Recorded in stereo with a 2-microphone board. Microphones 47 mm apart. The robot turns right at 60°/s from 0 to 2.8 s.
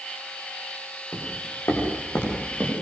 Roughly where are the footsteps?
Left.